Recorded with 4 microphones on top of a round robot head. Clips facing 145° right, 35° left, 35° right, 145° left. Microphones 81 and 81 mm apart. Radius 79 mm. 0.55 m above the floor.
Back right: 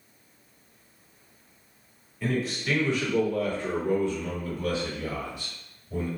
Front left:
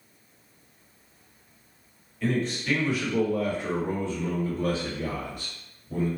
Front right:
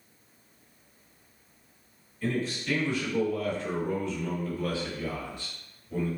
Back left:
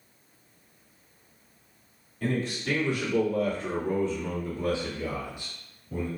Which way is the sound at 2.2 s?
135° left.